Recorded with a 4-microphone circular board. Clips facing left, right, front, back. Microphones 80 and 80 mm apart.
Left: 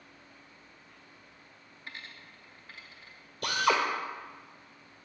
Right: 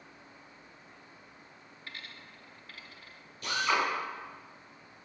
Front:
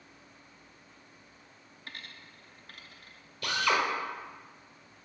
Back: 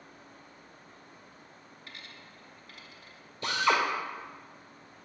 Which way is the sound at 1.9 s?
25° left.